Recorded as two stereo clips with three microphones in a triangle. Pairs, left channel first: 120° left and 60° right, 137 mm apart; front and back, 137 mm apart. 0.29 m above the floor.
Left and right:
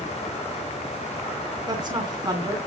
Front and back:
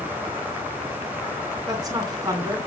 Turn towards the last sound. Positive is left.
turn(degrees=-120)